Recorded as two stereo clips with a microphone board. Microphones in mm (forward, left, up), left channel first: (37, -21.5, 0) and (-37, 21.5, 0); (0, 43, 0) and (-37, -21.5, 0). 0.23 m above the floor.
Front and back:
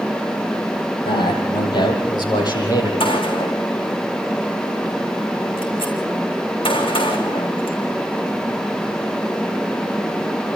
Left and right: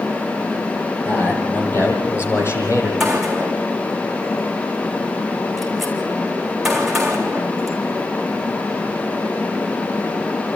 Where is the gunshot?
30° right, 3.5 m.